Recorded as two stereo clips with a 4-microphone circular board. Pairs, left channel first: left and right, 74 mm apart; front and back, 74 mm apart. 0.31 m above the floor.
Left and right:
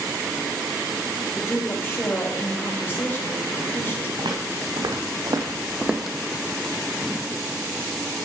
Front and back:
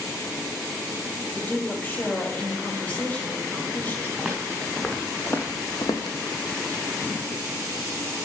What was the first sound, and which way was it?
A woman speaking, 55° left.